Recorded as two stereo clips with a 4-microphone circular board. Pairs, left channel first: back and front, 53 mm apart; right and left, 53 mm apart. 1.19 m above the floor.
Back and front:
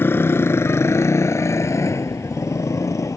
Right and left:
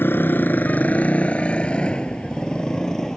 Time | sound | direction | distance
0.0 | a motorcycle | 135° right | ?